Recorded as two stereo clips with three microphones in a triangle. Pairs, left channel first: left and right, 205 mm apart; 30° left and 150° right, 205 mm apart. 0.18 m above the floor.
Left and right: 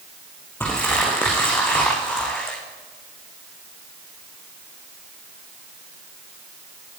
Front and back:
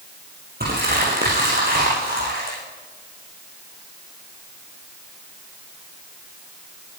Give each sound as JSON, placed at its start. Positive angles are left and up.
{"t": 0.6, "sound": "crumpling", "azimuth_deg": 170, "distance_m": 6.0}